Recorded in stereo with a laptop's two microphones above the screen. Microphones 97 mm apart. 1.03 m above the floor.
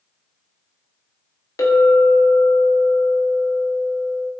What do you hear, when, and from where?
1.6 s a clink: 35° left (ahead or behind), 0.7 m